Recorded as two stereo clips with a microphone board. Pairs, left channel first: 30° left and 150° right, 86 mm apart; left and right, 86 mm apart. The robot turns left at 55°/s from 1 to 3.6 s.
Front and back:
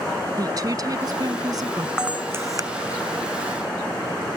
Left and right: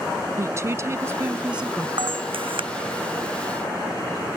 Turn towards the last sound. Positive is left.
turn(degrees=-160)